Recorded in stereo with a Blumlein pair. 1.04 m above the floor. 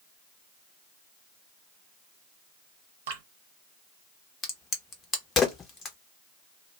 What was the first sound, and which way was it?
Dripping, 55° right.